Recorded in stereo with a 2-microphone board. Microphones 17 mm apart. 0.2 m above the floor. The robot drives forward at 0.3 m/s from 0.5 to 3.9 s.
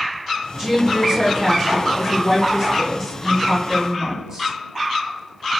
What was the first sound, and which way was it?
A woman speaking, 25° right (ahead or behind).